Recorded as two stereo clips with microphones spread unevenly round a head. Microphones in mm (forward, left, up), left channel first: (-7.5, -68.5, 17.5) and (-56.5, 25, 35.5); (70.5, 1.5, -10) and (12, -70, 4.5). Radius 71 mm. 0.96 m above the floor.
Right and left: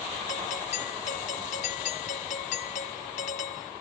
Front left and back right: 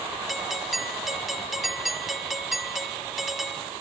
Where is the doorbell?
40° right.